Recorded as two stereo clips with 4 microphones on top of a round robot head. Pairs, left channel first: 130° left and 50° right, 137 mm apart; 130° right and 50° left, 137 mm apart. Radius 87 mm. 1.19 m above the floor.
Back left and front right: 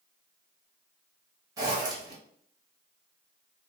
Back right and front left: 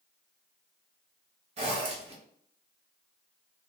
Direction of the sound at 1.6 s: 15° left.